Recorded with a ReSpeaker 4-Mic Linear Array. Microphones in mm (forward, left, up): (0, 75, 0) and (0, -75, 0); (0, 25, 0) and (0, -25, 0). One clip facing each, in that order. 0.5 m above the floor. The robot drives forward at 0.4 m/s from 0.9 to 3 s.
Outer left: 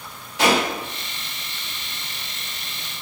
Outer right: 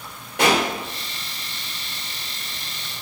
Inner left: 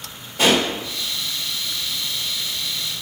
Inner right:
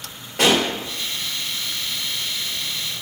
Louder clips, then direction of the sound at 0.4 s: Even, even; 55° right (ahead or behind).